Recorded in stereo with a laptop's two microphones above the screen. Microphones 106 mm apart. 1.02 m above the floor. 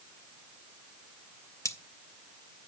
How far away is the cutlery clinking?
About 0.6 m.